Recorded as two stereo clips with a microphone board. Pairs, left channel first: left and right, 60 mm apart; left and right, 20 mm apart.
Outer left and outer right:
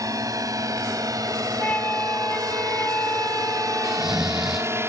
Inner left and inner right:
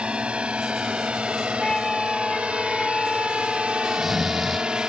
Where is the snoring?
5° right (ahead or behind).